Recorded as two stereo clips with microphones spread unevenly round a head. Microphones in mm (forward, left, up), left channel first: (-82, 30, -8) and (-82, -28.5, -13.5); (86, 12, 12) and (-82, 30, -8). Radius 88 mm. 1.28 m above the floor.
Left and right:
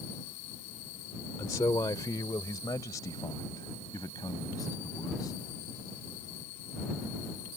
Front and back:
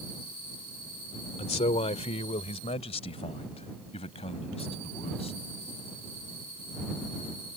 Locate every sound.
1.4 s a man speaking: 45° left